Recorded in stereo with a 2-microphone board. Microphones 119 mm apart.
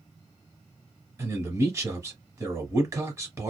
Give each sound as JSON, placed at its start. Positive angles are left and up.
{"t": 1.2, "sound": "a man speaking", "side_deg": -25, "distance_m": 1.2}